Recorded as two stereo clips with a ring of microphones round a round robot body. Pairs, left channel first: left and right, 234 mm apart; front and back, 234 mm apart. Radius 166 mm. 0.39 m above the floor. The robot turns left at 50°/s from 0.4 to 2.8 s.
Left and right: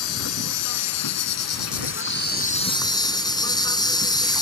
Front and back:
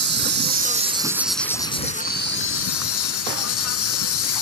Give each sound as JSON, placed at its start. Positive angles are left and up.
{"t": 0.0, "sound": "an insect", "azimuth_deg": 135}